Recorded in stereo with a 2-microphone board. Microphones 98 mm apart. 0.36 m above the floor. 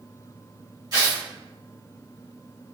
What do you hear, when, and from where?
0.9 s tearing paper: 40° right (ahead or behind), 1.3 m